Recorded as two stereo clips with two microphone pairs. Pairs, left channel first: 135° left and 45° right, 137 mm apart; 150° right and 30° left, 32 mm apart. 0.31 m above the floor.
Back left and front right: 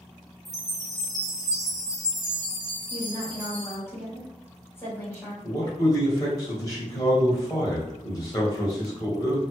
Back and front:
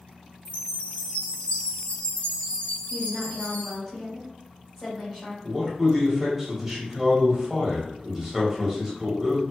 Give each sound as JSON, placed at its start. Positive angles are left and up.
{"t": 0.5, "sound": "a chime", "azimuth_deg": -105, "distance_m": 0.8}
{"t": 2.9, "sound": "a woman speaking", "azimuth_deg": 105, "distance_m": 1.4}
{"t": 5.4, "sound": "a man speaking", "azimuth_deg": 95, "distance_m": 1.1}